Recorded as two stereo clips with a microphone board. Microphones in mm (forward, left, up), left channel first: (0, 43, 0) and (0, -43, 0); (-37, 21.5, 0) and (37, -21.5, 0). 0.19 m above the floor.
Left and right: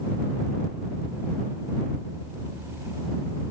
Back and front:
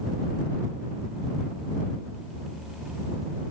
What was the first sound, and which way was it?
Only background noise.